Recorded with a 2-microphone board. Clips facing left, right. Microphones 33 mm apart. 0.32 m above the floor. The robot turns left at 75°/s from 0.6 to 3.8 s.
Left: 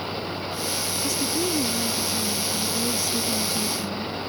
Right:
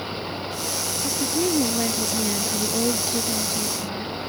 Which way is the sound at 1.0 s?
5° left.